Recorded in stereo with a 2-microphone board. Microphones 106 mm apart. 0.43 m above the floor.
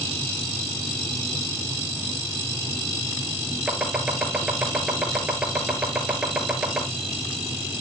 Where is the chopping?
5° right (ahead or behind), 4.5 m.